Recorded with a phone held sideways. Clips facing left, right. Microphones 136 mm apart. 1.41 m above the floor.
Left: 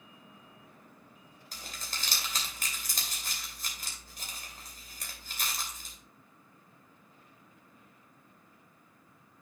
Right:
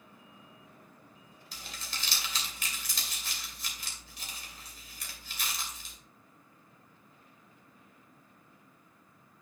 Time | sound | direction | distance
1.5 | crumpling | 50° left (ahead or behind) | 3 m